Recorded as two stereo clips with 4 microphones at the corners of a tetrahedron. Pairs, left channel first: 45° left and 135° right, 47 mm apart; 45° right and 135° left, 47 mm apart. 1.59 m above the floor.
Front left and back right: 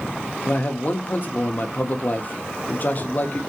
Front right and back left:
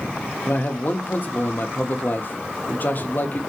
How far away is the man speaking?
About 0.8 m.